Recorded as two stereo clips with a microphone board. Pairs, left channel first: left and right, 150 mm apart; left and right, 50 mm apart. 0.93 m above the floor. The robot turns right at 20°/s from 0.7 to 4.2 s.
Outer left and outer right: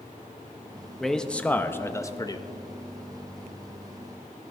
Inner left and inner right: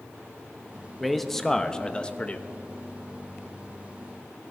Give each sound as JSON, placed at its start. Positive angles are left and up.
{"t": 1.0, "sound": "a man speaking", "side_deg": 0, "distance_m": 0.6}